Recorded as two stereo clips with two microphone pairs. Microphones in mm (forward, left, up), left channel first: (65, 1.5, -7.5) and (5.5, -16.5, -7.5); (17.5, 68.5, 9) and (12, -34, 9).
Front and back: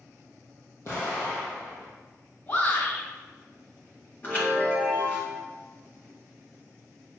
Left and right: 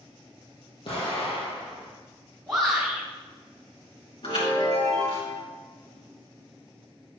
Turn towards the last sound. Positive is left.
turn(degrees=70)